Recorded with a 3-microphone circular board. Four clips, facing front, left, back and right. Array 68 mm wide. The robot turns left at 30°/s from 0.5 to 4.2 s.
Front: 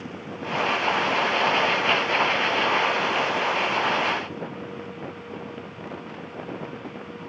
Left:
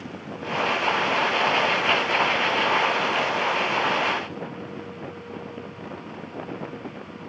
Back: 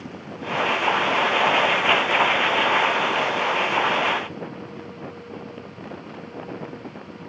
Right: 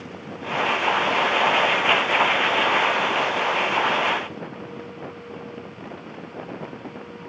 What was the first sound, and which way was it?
Only background noise.